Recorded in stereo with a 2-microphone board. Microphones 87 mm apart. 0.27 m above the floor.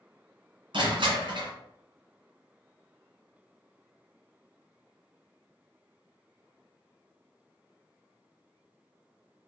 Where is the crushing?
65° right (ahead or behind), 2 m.